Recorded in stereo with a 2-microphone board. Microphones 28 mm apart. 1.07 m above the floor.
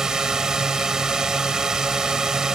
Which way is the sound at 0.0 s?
25° right (ahead or behind).